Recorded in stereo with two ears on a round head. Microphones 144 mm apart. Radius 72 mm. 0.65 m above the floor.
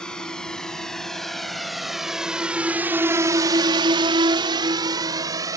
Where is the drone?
5° left (ahead or behind); by 5.6 s 20° right (ahead or behind).